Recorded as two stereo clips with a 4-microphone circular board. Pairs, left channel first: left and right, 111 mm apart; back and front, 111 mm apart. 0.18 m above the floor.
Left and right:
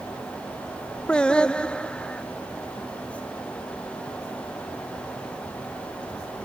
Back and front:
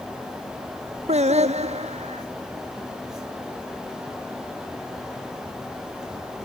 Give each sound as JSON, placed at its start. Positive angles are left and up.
{"t": 1.1, "sound": "singing", "azimuth_deg": 10}